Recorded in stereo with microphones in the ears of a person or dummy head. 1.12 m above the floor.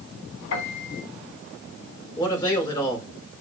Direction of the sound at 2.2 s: 20° left (ahead or behind).